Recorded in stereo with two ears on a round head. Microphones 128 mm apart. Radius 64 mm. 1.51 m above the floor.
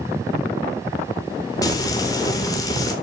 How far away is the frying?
About 3.5 m.